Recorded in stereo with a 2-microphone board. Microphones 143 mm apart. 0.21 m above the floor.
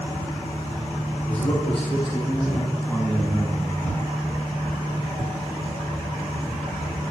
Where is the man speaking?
55° left (ahead or behind), 3.5 m; by 3.8 s 20° right (ahead or behind), 2.5 m.